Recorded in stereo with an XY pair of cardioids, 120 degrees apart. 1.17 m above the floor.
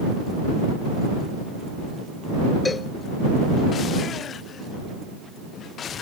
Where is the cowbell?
20° left.